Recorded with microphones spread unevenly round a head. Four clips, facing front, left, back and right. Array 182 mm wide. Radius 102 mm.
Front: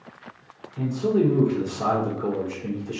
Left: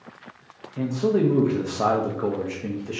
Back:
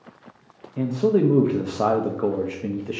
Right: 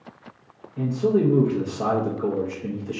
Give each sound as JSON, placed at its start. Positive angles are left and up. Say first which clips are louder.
{"t": 0.8, "sound": "a man speaking", "louder": "right 1 dB, back 2 dB", "azimuth_deg": 170, "distance_m": 0.6}